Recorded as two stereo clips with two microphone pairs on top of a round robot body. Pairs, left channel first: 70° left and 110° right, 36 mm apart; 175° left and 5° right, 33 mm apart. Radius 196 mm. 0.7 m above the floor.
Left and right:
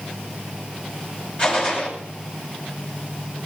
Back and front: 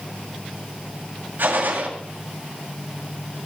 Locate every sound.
1.4 s a gunshot: 15° left, 2.5 m